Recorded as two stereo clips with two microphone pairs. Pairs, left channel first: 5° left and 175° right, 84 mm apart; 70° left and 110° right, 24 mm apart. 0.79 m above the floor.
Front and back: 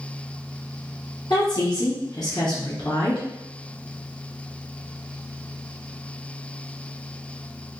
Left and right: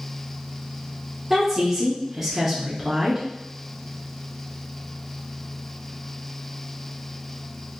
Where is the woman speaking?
40° right, 1.2 m.